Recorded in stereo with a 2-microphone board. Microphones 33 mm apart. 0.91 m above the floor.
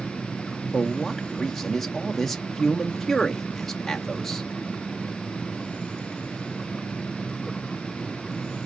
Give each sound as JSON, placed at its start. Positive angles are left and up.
{"t": 0.7, "sound": "a man speaking", "side_deg": 5, "distance_m": 0.7}